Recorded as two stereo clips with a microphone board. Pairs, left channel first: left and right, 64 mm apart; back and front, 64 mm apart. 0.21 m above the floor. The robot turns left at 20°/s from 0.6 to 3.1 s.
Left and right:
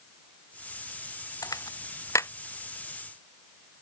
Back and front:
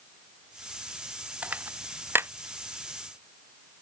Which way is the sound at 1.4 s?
70° left.